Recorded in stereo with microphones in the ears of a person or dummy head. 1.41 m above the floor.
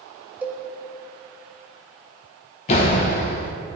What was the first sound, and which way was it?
A cowbell, 10° right (ahead or behind).